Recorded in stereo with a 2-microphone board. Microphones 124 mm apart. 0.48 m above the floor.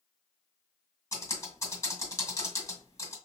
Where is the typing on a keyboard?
30° left (ahead or behind), 1.6 m.